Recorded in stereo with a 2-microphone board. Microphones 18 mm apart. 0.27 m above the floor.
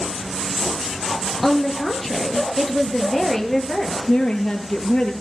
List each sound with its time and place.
1.4 s a woman speaking: centre (ahead or behind), 4.5 m; by 4.0 s 20° left (ahead or behind), 5 m
4.1 s a woman speaking: 55° left (ahead or behind), 5.5 m